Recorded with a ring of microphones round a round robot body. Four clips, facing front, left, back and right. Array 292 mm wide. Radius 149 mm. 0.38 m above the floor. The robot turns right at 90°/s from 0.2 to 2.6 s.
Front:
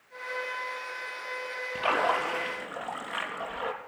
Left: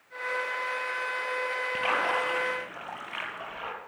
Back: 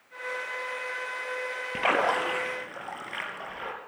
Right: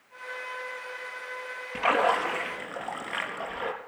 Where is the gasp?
No gasp in this recording.